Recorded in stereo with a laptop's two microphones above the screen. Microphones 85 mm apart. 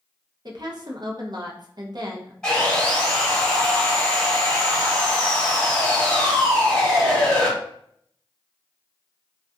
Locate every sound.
0.5 s a woman speaking: 50° right (ahead or behind), 0.6 m
2.4 s sawing: 5° left (ahead or behind), 1.7 m